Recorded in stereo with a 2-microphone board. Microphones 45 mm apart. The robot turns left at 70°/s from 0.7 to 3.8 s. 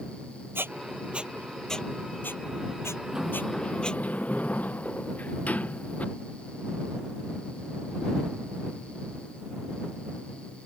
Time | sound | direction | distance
0.6 | a squeak | 55° right (ahead or behind) | ?
3.1 | a sliding door | 165° right | ?